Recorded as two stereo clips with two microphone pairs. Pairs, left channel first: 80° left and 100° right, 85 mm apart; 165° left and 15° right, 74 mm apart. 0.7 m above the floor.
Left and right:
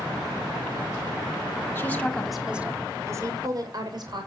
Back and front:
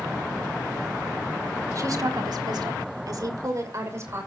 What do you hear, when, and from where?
1.8 s a woman speaking: 20° left, 1.9 m; by 4.3 s 70° right, 3.5 m